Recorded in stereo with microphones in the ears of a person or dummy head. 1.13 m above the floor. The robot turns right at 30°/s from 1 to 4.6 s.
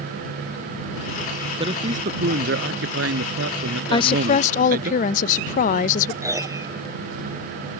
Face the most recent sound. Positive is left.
turn(degrees=-15)  # may be behind; listen again after turning